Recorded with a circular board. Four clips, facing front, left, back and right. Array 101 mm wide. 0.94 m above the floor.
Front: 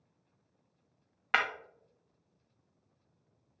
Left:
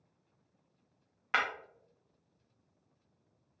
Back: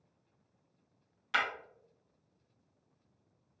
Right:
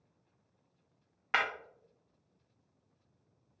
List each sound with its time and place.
1.3 s breaking glass: 5° right, 0.7 m